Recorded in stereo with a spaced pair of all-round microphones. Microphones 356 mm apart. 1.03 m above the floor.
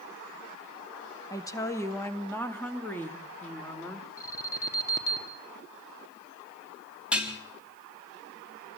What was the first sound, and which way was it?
A woman speaking, 10° left (ahead or behind).